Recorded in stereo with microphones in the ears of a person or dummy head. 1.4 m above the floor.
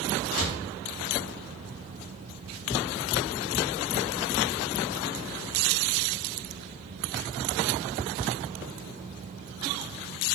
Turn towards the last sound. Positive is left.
turn(degrees=80)